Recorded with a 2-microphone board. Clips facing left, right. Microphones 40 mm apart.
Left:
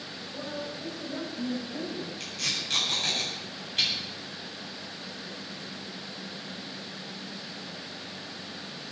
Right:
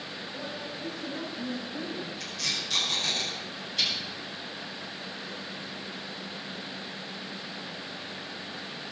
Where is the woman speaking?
65° left (ahead or behind), 9 m; by 2.1 s 60° left (ahead or behind), 7.5 m.